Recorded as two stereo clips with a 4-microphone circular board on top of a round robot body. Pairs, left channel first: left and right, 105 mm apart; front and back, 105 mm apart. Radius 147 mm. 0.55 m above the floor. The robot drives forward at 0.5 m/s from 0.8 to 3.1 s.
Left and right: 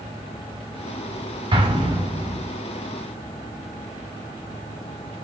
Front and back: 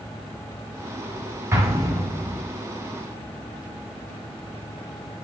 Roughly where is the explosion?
Behind right.